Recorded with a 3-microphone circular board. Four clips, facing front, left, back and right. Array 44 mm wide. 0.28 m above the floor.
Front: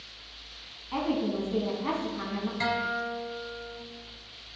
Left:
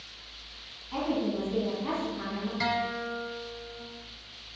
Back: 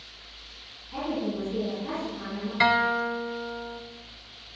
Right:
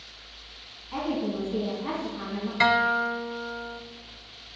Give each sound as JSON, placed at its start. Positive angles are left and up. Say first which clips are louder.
{"t": 0.9, "sound": "a woman speaking", "louder": "even, front 2 dB", "azimuth_deg": -10, "distance_m": 2.5}
{"t": 2.6, "sound": "a guitar", "louder": "right 10 dB, back 8 dB", "azimuth_deg": -135, "distance_m": 0.6}